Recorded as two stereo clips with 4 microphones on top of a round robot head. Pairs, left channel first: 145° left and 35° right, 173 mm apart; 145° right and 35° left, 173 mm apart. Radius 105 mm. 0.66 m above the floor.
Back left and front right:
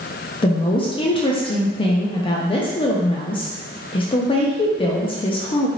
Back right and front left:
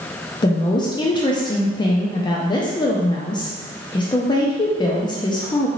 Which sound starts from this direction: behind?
A woman speaking, at 0.4 s.